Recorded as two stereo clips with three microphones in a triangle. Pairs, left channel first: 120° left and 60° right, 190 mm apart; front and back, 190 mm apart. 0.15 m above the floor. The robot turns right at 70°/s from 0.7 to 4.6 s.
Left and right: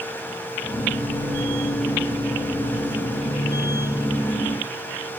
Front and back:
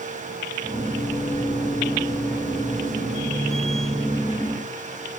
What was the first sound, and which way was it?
Only background noise.